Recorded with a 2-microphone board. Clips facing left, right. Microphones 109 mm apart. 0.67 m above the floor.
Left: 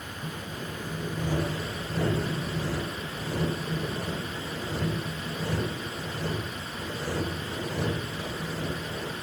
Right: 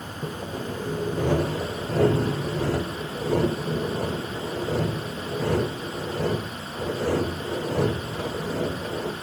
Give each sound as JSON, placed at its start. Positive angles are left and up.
{"t": 0.2, "sound": "sawing", "side_deg": -75, "distance_m": 0.7}